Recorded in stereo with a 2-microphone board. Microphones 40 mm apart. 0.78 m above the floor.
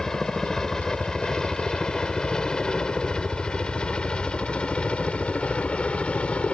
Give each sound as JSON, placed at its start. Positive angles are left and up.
{"t": 0.0, "sound": "a helicopter", "side_deg": 10}